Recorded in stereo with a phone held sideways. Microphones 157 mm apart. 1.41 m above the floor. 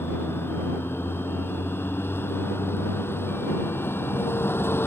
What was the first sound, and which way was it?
A vehicle, 15° left (ahead or behind).